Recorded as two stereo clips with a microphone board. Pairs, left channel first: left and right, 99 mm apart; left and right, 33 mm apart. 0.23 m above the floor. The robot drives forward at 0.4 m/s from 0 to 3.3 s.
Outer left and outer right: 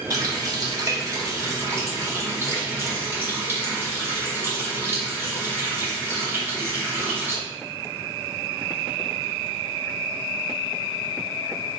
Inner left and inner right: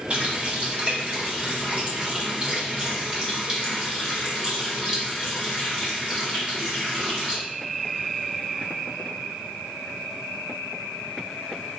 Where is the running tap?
35° right (ahead or behind), 1.1 m; by 7.4 s 25° right (ahead or behind), 1.6 m.